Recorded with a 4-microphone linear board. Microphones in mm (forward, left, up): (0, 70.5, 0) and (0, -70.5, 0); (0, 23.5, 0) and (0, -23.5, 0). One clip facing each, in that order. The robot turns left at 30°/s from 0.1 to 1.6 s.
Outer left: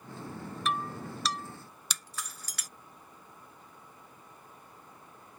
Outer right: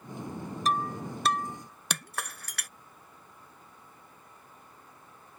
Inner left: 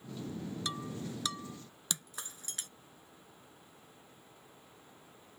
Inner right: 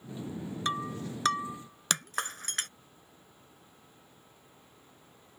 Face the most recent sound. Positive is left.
turn(degrees=-70)  # may be behind; listen again after turning